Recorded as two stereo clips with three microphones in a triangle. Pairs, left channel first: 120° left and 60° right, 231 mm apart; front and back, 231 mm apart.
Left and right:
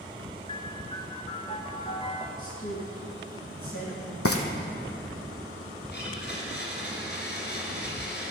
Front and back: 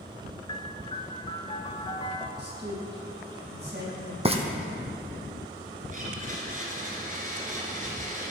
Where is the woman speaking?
140° left, 4.5 m.